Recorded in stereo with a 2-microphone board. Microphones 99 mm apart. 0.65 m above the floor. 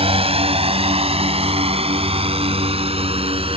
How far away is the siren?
I don't hear a siren.